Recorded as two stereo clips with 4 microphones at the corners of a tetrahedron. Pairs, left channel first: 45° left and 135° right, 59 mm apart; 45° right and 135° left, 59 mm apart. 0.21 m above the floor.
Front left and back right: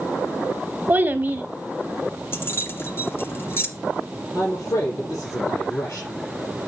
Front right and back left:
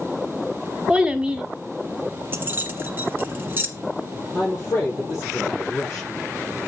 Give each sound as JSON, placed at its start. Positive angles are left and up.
{"t": 0.9, "sound": "a child speaking", "azimuth_deg": -165, "distance_m": 0.8}
{"t": 2.3, "sound": "keys jangling", "azimuth_deg": 85, "distance_m": 1.4}
{"t": 4.3, "sound": "a man speaking", "azimuth_deg": 15, "distance_m": 5.5}